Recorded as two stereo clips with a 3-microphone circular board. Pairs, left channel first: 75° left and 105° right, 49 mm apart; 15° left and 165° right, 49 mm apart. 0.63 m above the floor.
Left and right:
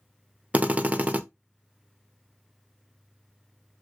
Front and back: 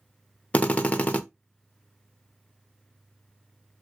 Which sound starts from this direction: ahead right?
A drill, at 0.5 s.